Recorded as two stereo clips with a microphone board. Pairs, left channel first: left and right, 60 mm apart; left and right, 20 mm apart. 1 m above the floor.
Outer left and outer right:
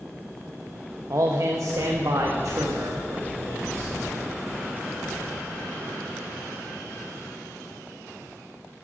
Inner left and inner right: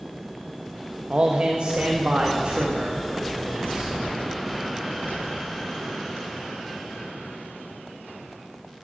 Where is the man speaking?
60° right (ahead or behind), 1.2 m; by 3.9 s 65° right (ahead or behind), 2.5 m.